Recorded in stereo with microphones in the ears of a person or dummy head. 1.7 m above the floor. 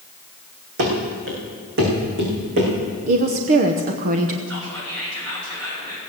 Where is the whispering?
85° right, 7 m.